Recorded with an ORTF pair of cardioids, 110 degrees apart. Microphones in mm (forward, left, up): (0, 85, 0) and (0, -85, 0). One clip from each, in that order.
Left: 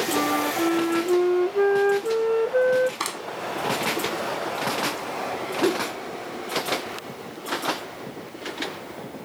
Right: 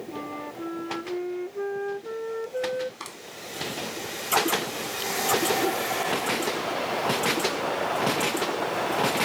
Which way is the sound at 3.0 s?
60° left.